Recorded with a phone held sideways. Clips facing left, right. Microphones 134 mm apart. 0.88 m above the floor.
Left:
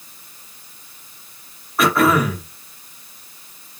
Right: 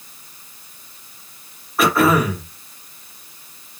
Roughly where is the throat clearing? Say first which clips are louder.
Even; centre.